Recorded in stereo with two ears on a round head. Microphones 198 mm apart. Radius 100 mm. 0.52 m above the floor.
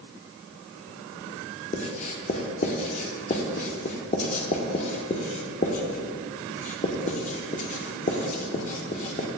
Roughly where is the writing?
Left.